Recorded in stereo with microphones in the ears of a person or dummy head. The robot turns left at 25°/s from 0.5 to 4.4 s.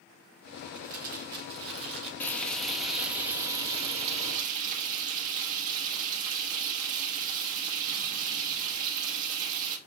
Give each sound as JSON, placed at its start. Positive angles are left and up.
{"t": 0.8, "sound": "crumpling", "azimuth_deg": -45, "distance_m": 1.7}
{"t": 2.2, "sound": "frying", "azimuth_deg": 15, "distance_m": 1.4}